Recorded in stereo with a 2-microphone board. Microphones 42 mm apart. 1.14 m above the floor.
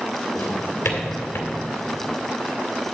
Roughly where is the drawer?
Left.